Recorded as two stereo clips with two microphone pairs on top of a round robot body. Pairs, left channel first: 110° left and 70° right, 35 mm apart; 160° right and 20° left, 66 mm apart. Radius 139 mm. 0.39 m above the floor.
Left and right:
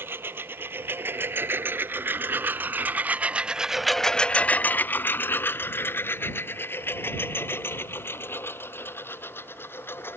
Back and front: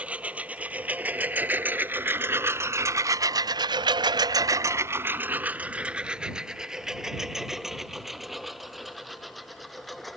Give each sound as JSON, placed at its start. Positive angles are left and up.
{"t": 0.0, "sound": "a lawn mower", "azimuth_deg": -55}